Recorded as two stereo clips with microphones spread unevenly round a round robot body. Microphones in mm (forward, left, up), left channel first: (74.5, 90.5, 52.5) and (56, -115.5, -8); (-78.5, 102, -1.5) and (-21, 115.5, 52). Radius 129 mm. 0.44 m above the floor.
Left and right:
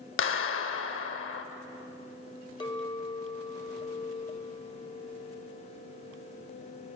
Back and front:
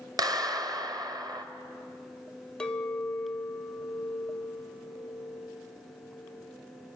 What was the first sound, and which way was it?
A clap, 60° left.